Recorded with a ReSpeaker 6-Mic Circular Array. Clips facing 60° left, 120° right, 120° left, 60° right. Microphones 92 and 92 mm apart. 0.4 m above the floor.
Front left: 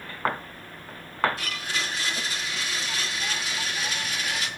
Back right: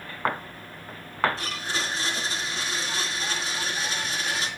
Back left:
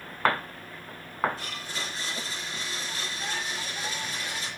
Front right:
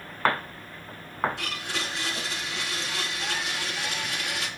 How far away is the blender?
About 3.5 m.